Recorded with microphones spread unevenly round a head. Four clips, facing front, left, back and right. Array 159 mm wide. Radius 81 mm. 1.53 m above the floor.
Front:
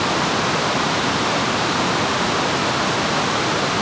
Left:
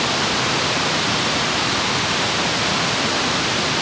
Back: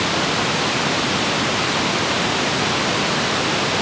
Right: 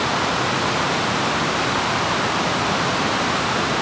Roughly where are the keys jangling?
I don't hear keys jangling.